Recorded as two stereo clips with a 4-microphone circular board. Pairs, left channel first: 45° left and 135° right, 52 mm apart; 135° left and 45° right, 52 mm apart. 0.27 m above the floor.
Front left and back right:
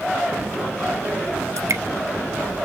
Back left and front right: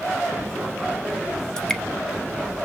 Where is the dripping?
150° right, 0.6 m.